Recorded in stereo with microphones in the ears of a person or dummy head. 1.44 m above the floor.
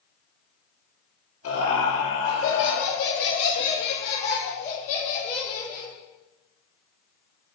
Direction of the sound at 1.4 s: 85° left.